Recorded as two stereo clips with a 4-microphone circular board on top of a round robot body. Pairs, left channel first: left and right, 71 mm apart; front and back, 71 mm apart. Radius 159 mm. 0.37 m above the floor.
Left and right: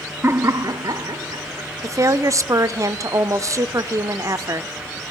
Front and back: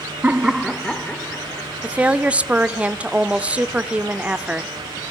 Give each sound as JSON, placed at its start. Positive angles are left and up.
{"t": 0.2, "sound": "laughter", "azimuth_deg": -125, "distance_m": 1.1}
{"t": 1.8, "sound": "a woman speaking", "azimuth_deg": -110, "distance_m": 1.4}